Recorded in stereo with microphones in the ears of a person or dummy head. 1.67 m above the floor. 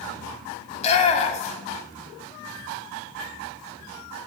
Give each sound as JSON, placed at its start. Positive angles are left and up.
{"t": 0.7, "sound": "a shout", "side_deg": 40, "distance_m": 1.2}